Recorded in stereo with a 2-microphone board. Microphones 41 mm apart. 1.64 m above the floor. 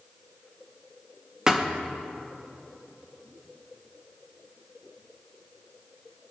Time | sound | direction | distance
1.5 | a thud | 20° right (ahead or behind) | 1.0 m